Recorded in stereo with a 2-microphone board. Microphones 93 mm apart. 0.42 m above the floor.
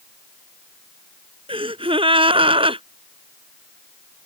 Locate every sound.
1.5 s a gasp: 80° right